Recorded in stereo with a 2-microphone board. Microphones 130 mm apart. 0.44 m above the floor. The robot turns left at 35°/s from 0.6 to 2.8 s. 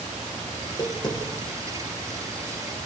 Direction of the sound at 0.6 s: 20° left (ahead or behind).